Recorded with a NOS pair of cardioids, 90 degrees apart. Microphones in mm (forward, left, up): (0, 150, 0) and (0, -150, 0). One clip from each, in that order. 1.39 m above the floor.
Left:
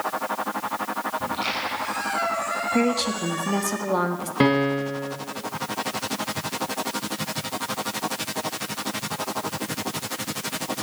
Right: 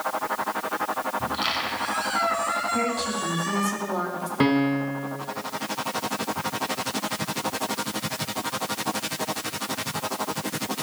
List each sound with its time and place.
1.2 s a squeak: 25° right, 5.5 m
2.7 s a woman speaking: 45° left, 2 m
4.4 s a piano: 15° left, 1.6 m